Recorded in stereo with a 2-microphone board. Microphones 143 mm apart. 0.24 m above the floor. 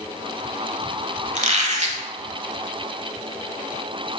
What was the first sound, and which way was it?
A squeak, 55° right (ahead or behind).